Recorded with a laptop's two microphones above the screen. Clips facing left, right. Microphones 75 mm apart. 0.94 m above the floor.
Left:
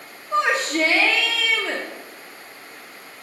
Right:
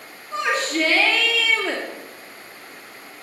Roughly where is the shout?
Left.